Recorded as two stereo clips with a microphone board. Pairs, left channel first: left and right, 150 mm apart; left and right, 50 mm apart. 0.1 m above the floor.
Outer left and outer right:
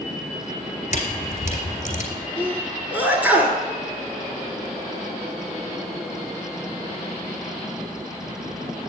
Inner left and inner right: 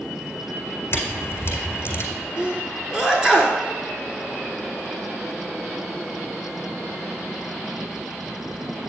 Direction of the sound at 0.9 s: 50° left (ahead or behind).